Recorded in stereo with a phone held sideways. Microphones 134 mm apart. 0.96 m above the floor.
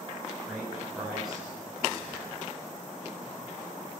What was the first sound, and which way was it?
A man speaking, 5° right (ahead or behind).